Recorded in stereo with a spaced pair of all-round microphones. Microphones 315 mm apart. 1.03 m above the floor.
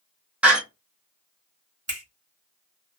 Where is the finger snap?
50° right (ahead or behind), 1.2 m.